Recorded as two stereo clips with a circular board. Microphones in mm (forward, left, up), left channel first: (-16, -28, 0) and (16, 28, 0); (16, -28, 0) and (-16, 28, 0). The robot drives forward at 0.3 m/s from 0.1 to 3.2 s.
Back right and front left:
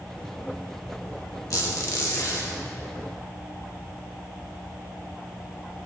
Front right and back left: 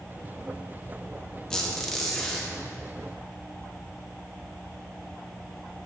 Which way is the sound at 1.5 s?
140° right.